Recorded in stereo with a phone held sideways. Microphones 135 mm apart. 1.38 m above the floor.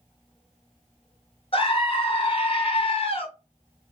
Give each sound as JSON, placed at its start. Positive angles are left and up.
{"t": 1.5, "sound": "a scream", "side_deg": 45, "distance_m": 1.1}